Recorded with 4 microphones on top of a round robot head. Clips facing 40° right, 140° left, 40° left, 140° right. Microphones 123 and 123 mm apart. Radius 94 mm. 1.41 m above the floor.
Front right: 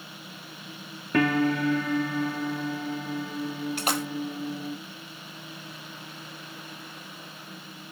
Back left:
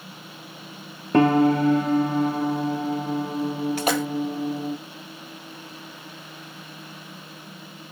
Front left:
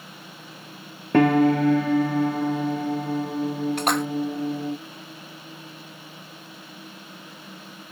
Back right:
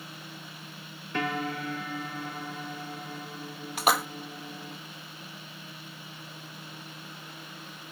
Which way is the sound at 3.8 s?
135° left.